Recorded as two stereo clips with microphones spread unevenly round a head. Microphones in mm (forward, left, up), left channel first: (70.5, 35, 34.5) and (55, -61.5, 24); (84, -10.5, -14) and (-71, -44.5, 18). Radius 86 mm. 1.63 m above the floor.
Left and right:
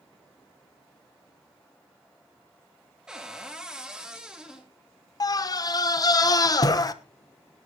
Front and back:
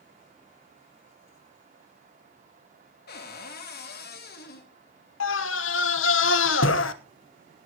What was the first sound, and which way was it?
A cupboard door, 15° right.